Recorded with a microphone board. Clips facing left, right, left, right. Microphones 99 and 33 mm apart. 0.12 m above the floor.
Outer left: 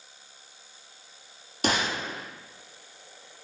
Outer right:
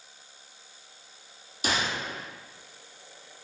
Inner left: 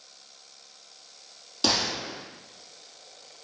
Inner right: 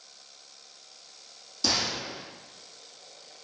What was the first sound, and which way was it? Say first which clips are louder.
A gunshot: outer left 2 dB, inner left 2 dB; 60° left (ahead or behind).